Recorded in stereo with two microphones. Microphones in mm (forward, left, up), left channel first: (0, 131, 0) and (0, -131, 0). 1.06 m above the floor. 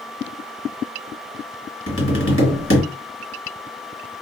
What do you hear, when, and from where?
1.9 s tapping: 50° left (ahead or behind), 1.9 m